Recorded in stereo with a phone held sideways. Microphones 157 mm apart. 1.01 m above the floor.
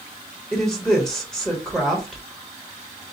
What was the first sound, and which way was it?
A woman speaking, 5° left (ahead or behind).